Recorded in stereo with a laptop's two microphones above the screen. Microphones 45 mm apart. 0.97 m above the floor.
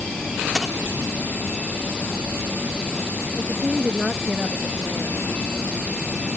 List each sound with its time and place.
0.6 s a dropped coin: 15° right (ahead or behind)
3.4 s a woman speaking: 15° right (ahead or behind)